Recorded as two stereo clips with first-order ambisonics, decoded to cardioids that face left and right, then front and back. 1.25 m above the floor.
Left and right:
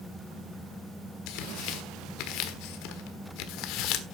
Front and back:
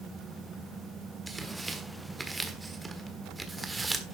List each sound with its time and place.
1.3 s tearing paper: 100° left, 1.4 m